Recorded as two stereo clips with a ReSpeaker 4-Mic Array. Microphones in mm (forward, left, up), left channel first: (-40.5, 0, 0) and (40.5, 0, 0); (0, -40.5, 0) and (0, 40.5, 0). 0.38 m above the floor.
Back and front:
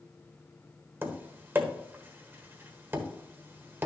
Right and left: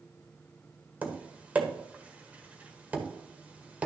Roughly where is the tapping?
Ahead left.